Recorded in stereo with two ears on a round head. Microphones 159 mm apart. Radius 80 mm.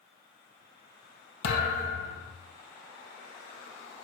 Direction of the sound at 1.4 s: 70° left (ahead or behind).